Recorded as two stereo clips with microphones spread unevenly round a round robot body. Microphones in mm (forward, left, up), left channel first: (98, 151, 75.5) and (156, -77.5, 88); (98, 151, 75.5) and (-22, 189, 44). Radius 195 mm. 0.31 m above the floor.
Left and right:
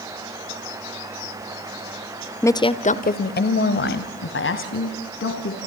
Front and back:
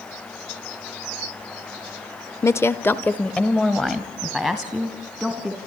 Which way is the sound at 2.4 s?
50° left.